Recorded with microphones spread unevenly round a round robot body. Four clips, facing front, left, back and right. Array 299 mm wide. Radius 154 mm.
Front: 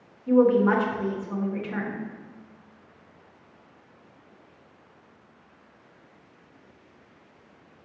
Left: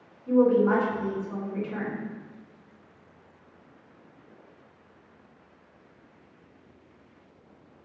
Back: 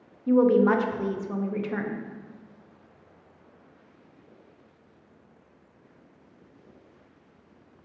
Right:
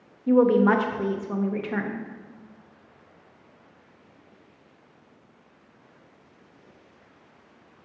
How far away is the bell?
I don't hear a bell.